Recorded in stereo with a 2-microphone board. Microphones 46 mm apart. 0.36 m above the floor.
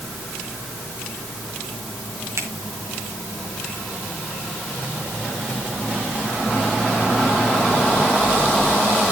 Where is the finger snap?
75° right (ahead or behind), 3.5 m.